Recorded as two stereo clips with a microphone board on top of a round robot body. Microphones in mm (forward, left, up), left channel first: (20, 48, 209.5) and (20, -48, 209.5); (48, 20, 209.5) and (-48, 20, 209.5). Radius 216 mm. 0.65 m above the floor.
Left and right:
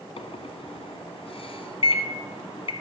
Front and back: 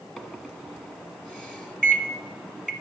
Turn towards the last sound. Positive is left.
turn(degrees=85)